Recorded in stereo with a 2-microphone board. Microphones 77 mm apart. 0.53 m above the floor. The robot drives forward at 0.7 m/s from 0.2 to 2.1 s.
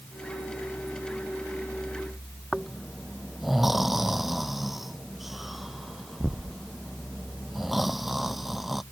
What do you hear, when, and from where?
2.5 s snoring: centre (ahead or behind)